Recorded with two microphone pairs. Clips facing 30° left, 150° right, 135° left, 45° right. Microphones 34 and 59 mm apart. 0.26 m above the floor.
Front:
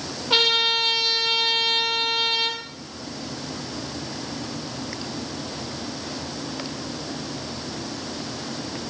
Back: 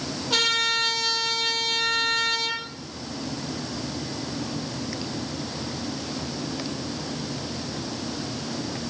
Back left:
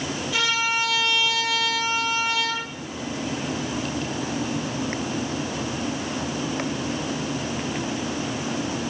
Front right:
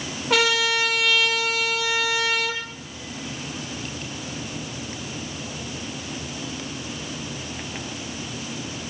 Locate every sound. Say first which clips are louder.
0.3 s a trumpet: front 3 dB, front right 4 dB; 30° right, 4.5 m